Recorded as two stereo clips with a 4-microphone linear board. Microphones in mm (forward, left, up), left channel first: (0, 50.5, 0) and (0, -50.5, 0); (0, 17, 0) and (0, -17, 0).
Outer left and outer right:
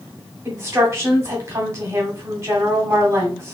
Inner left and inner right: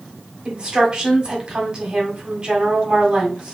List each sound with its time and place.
0.5 s a woman speaking: 25° right (ahead or behind), 1.3 m